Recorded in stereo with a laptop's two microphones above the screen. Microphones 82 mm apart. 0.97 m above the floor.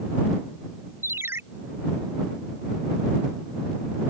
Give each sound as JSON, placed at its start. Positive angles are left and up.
{"t": 1.0, "sound": "a ringtone", "side_deg": -35}